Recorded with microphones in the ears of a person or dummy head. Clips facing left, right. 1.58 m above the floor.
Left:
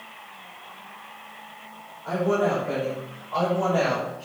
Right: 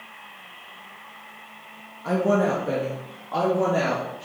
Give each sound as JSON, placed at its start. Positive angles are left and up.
{"t": 2.0, "sound": "a woman speaking", "side_deg": -70, "distance_m": 1.5}